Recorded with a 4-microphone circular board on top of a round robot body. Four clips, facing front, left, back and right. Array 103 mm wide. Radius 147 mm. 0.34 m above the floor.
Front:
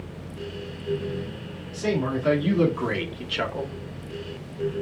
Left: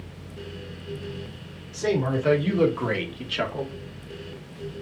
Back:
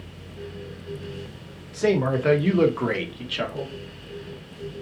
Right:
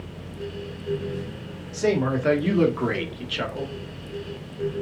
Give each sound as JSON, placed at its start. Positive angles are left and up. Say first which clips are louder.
{"t": 1.7, "sound": "a man speaking", "louder": "right 2 dB, back 4 dB", "azimuth_deg": -155, "distance_m": 1.8}